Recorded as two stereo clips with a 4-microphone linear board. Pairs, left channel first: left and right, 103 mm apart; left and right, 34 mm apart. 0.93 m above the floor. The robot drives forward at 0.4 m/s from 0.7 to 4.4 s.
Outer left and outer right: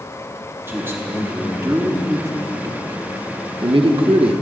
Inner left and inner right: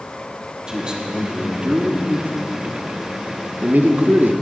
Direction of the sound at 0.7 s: 20° right (ahead or behind).